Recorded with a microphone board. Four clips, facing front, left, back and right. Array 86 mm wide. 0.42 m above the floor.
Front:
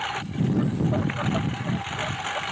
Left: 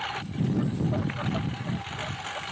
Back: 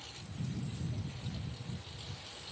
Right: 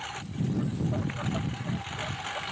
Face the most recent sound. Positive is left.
turn(degrees=0)